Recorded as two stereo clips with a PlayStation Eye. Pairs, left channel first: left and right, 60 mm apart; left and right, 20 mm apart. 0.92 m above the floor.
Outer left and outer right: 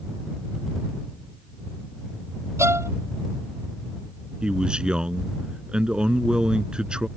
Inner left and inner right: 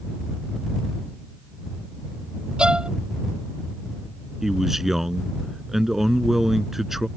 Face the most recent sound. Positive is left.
turn(degrees=-15)  # may be behind; listen again after turning